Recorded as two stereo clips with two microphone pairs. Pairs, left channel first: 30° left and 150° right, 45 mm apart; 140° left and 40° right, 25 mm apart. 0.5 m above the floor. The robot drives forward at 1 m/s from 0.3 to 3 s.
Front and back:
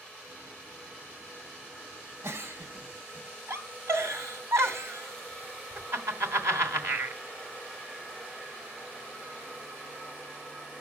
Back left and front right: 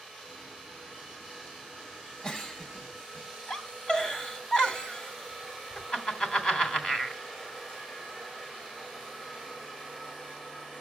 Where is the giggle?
160° right, 1.4 m; by 7.2 s 170° right, 2 m.